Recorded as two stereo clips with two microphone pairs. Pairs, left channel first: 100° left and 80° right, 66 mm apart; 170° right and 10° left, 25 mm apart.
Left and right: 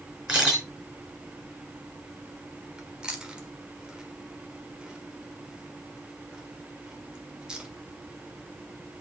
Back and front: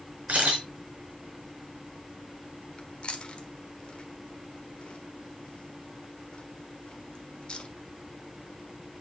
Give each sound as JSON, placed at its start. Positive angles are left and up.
{"t": 0.3, "sound": "a camera shutter", "azimuth_deg": -5, "distance_m": 4.0}
{"t": 2.8, "sound": "chewing", "azimuth_deg": -150, "distance_m": 1.2}